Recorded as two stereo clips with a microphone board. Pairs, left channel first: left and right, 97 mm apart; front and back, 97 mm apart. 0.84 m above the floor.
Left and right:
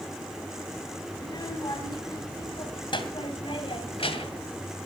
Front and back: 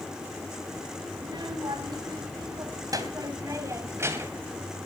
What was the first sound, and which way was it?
A child speaking, 140° left.